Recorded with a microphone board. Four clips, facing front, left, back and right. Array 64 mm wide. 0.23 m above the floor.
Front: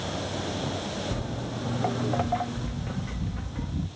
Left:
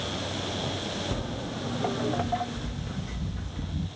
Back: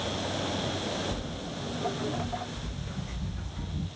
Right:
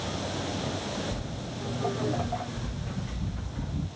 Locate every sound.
1.1 s footsteps: 50° left, 0.8 m; by 3.9 s 15° right, 1.7 m